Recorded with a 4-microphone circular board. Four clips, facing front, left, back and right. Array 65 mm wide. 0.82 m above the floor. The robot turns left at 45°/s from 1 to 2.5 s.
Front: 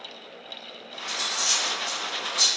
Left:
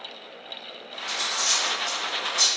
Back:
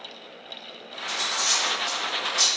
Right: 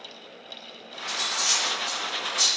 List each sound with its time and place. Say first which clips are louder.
1.1 s cutlery clinking: left 1 dB, back 2 dB; 115° right, 0.9 m; by 2.5 s straight behind, 0.9 m